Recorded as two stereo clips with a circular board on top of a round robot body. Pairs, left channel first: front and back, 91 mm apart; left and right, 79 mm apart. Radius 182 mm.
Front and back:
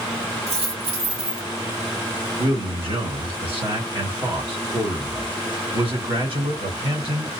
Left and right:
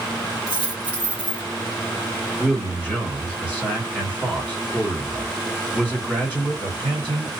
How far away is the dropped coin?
About 1.3 m.